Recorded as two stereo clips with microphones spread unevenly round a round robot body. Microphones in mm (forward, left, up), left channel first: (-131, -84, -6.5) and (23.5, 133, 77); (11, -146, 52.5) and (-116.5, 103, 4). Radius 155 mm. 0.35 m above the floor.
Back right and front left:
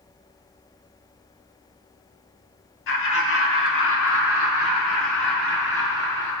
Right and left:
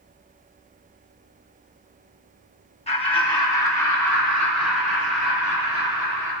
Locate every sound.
2.9 s laughter: 135° right, 3 m; by 6.3 s 160° right, 7.5 m